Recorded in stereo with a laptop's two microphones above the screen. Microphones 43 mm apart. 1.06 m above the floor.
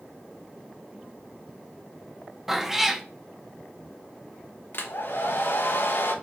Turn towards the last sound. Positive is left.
turn(degrees=60)  # may be behind; listen again after turning